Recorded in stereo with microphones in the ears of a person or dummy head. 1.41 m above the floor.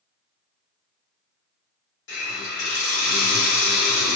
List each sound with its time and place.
2.1 s a hiss: 70° left (ahead or behind), 1.9 m